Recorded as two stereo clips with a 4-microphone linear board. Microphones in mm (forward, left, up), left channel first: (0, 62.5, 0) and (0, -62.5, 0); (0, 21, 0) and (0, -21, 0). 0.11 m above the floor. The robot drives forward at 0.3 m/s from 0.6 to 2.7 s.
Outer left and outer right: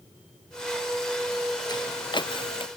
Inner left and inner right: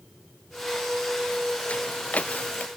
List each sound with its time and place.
1.7 s footsteps: 35° left (ahead or behind); by 2.7 s 45° left (ahead or behind)